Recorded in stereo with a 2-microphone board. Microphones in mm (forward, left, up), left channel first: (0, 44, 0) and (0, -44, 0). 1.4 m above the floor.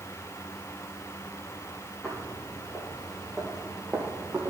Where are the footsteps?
15° left (ahead or behind), 4 m; by 4.5 s 20° right (ahead or behind), 2.5 m.